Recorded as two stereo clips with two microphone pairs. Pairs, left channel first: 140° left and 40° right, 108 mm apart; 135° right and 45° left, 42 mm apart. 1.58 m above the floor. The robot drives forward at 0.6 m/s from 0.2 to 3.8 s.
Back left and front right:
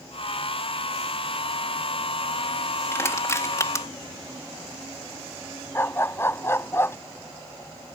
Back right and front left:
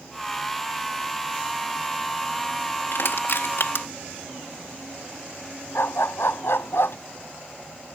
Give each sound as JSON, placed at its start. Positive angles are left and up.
{"t": 2.9, "sound": "crushing", "azimuth_deg": -155}
{"t": 5.8, "sound": "a dog barking", "azimuth_deg": -150}